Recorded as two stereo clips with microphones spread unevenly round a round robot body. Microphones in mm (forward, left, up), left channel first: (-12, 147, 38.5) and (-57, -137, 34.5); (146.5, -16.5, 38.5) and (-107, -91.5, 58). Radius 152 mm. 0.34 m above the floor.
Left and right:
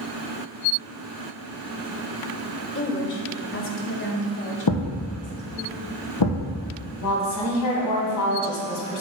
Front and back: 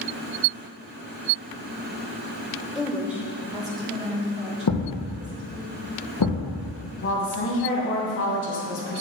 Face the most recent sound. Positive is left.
turn(degrees=60)